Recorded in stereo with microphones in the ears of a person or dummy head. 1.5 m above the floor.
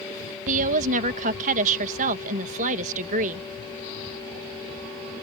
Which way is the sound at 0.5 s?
45° right (ahead or behind).